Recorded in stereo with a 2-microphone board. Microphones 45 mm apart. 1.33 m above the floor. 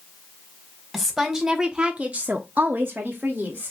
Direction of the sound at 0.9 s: Centre (ahead or behind).